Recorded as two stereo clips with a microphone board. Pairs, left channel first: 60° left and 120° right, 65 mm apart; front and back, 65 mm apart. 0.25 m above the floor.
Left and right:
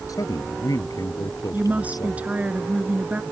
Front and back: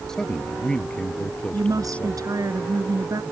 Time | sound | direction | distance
0.1 | a man speaking | 80° left | ?
1.5 | a woman speaking | 175° left | ?